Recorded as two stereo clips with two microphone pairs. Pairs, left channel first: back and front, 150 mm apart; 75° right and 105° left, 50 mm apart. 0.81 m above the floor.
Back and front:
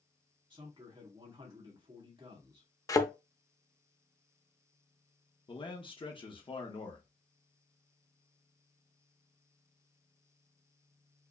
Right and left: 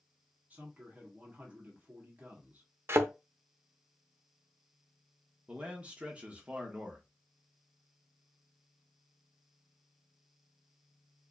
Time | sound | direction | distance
0.5 | a man speaking | 50° left | 1.7 m
2.9 | a thud | 115° left | 0.6 m
5.5 | a man speaking | 155° left | 1.1 m